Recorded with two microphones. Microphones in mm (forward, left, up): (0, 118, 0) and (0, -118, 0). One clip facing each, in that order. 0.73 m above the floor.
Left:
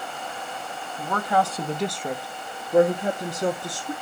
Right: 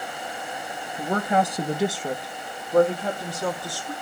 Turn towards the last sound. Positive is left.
turn(degrees=25)  # may be behind; listen again after turning